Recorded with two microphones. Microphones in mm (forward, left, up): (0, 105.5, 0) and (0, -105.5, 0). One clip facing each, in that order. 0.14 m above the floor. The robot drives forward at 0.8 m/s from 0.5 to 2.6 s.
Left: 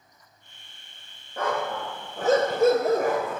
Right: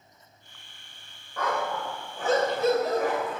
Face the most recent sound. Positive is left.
turn(degrees=55)  # may be behind; listen again after turning